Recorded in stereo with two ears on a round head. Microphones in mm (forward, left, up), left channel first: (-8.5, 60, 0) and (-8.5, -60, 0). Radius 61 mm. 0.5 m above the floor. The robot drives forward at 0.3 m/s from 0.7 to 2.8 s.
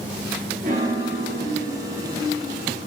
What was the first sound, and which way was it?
A piano, 65° right (ahead or behind).